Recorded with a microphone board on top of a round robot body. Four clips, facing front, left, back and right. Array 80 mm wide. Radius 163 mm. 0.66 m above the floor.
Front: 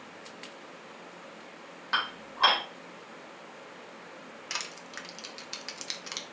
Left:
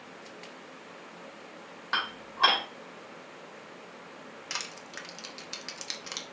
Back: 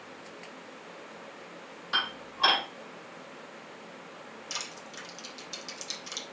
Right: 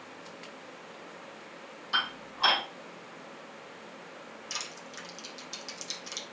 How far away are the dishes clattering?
About 2.5 m.